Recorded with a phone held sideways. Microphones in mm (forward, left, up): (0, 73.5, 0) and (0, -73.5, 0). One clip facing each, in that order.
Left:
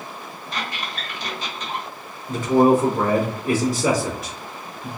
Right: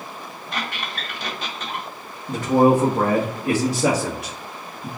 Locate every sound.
0.5 s a squeak: 60° right (ahead or behind), 1.3 m
2.3 s a man speaking: 60° right (ahead or behind), 1.0 m